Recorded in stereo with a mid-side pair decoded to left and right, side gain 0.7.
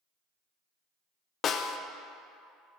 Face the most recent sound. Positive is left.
turn(degrees=40)